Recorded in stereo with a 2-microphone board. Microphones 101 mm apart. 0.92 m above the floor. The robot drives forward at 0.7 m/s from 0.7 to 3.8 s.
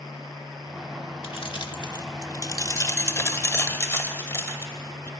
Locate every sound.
1.2 s keys jangling: 60° left (ahead or behind), 1.3 m; by 5.1 s 25° left (ahead or behind), 2.5 m